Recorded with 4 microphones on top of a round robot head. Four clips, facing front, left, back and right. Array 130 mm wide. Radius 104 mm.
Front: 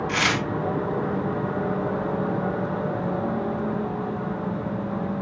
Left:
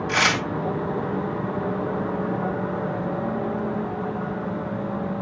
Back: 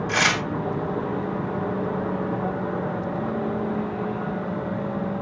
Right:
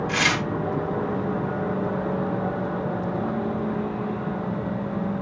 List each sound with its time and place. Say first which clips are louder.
0.1 s tearing paper: left 5 dB, back 3 dB; 140° left, 2.5 m